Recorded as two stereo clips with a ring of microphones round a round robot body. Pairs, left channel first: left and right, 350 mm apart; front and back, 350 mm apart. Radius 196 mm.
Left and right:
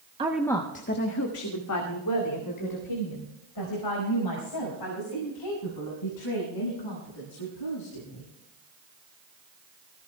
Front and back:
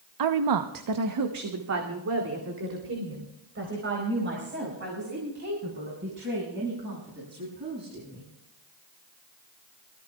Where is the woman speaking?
165° right, 0.8 m; by 8.2 s 120° left, 10 m.